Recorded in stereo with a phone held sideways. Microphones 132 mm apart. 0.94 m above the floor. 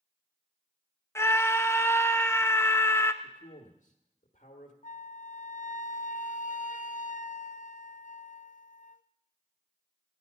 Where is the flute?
75° left (ahead or behind), 0.5 m.